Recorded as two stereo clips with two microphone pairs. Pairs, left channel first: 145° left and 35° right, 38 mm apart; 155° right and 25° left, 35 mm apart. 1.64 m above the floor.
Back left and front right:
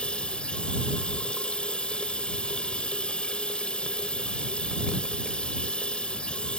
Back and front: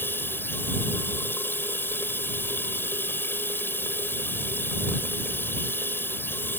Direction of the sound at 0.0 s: 160° right.